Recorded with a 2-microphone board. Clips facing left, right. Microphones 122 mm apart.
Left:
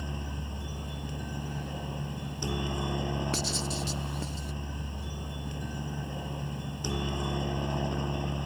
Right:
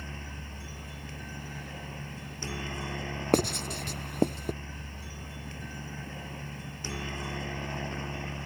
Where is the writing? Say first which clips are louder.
Right 6 dB; 60° right (ahead or behind).